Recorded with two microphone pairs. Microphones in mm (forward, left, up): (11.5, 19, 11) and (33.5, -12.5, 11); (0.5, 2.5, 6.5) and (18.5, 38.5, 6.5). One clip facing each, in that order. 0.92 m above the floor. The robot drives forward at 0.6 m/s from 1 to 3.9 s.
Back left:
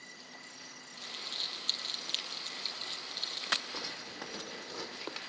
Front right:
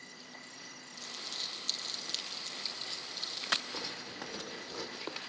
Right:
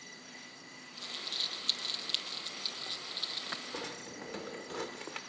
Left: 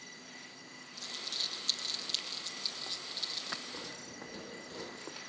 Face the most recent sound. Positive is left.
turn(degrees=-145)